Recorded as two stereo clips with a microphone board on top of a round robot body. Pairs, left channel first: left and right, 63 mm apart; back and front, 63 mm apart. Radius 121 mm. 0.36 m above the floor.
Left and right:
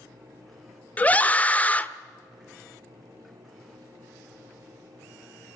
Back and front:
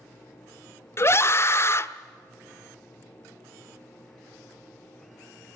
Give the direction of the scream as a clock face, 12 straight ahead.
7 o'clock.